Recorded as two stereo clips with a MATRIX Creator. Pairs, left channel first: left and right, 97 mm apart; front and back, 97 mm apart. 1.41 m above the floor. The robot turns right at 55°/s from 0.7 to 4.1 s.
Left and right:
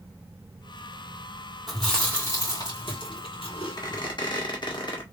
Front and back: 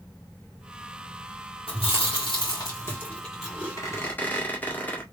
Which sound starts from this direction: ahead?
Chewing, at 1.7 s.